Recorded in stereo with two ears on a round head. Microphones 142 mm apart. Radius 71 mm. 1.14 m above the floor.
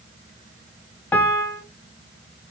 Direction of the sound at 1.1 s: 10° left (ahead or behind).